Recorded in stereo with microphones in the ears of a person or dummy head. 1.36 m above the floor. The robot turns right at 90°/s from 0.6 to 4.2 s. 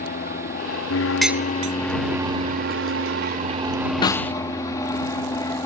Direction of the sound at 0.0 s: 55° left.